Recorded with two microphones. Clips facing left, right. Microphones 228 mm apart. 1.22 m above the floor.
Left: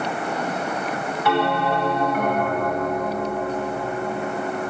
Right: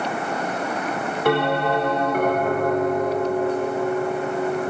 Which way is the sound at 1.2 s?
50° right (ahead or behind).